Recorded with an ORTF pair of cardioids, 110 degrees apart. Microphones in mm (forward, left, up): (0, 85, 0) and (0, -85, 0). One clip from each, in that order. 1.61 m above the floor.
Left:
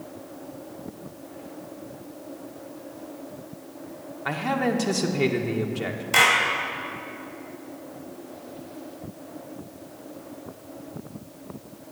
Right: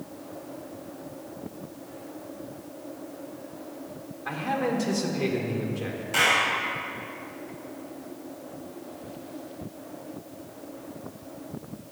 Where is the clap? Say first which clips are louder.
Left 3 dB; 60° left, 3.5 m.